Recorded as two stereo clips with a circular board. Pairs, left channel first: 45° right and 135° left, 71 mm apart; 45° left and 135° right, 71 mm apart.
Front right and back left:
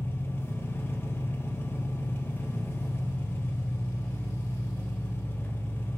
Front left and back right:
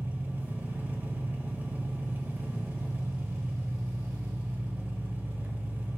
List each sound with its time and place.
0.0 s an engine running: 85° right, 1.2 m